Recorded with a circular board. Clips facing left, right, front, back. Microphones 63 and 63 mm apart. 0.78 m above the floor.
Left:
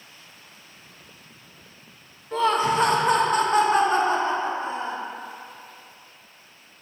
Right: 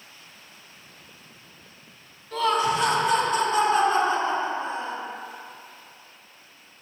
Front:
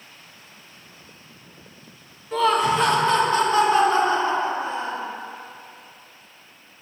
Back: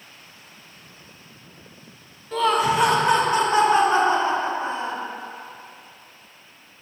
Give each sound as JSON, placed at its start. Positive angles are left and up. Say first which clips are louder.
{"t": 2.3, "sound": "laughter", "louder": "left 2 dB, even", "azimuth_deg": 75, "distance_m": 0.5}